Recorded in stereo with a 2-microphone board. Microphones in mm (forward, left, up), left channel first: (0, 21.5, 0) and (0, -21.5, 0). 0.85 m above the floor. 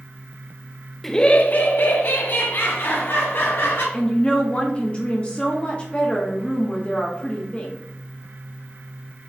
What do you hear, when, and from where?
1.0 s laughter: 5° left (ahead or behind), 0.8 m; by 3.8 s 65° left (ahead or behind), 4.5 m
3.9 s a woman speaking: 25° left (ahead or behind), 1.2 m